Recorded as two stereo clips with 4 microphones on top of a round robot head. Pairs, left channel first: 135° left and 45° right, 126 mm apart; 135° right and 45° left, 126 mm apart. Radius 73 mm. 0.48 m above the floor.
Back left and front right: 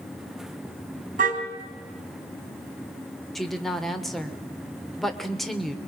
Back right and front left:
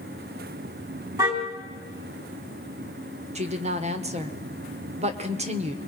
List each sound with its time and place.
1.2 s a car horn: 15° right, 2.5 m
3.4 s a woman speaking: 45° left, 1.6 m